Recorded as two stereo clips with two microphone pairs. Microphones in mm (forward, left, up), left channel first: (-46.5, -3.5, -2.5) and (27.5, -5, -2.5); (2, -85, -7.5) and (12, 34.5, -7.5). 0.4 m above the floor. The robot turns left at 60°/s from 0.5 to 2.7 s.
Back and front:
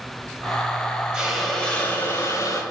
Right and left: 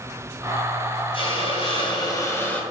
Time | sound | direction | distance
1.1 | a hiss | 80° right | 0.7 m